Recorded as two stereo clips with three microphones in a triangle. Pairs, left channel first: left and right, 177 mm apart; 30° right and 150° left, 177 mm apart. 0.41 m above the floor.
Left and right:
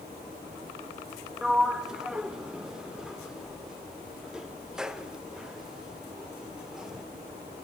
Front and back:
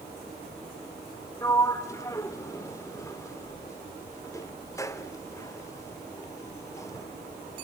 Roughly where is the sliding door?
Ahead.